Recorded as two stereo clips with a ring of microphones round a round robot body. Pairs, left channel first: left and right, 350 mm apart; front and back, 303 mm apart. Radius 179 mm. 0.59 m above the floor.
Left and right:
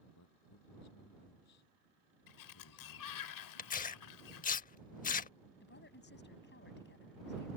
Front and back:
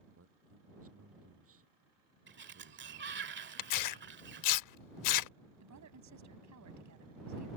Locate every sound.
0.1 s a man speaking: 135° left
2.3 s a sliding door: 125° left
3.6 s tearing paper: 20° left
5.6 s a woman speaking: 150° left